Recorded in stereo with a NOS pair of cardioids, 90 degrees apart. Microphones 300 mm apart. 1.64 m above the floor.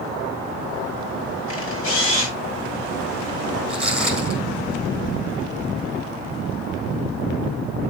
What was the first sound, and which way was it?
A camera shutter, 45° left.